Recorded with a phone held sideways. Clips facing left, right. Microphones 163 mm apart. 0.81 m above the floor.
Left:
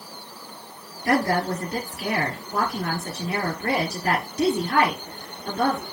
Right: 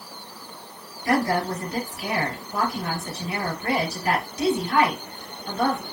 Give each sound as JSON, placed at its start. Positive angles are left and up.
{"t": 1.1, "sound": "a woman speaking", "side_deg": 45, "distance_m": 2.5}